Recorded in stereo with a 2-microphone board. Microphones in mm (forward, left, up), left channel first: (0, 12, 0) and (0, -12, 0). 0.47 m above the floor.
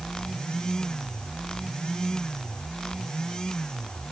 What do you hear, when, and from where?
Only background noise.